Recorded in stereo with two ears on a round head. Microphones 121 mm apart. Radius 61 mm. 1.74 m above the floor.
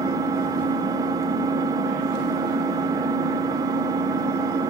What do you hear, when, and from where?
0.0 s an engine running: 25° right (ahead or behind), 0.8 m